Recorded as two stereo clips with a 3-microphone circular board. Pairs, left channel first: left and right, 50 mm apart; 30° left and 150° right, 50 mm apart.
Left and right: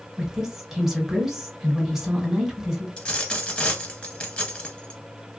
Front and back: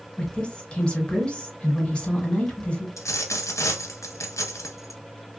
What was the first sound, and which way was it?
A woman speaking, 15° right.